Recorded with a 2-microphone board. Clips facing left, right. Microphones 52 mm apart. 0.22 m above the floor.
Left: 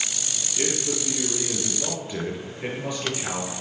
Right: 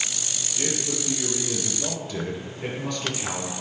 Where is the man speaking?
30° left (ahead or behind), 4 m; by 3.5 s 10° left (ahead or behind), 3.5 m.